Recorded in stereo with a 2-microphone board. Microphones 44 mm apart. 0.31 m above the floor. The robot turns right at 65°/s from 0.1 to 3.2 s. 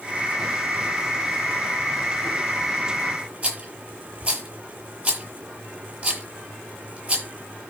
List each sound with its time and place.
3.4 s a rattle: 35° right (ahead or behind), 7.5 m